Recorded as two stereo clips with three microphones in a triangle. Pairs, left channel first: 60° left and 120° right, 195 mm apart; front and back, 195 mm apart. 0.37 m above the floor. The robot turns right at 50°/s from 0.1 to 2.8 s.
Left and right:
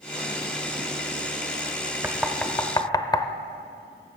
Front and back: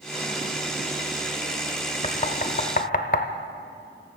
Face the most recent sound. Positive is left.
turn(degrees=-5)